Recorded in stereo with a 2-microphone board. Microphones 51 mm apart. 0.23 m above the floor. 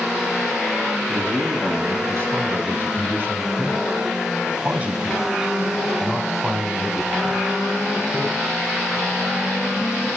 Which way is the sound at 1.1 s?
60° right (ahead or behind).